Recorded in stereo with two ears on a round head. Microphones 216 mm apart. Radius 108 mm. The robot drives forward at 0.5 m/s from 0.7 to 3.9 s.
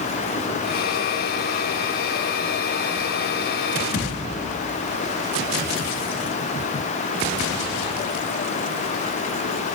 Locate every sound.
3.9 s a thud: 40° left (ahead or behind), 4.5 m